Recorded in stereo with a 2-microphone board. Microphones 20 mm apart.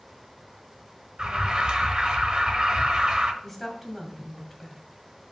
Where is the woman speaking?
5° left (ahead or behind), 1.9 m.